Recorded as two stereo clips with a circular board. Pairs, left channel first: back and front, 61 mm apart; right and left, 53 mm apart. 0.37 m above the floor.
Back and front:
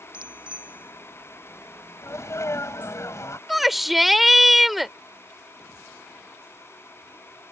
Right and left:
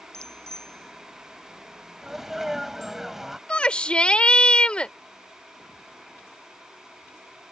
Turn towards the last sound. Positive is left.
turn(degrees=-80)